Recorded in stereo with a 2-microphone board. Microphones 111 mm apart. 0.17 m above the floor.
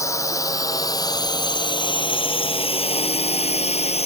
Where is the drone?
30° left (ahead or behind); by 4.1 s 70° left (ahead or behind).